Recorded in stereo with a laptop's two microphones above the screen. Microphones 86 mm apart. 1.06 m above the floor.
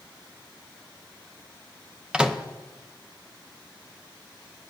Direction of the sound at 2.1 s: 10° right (ahead or behind).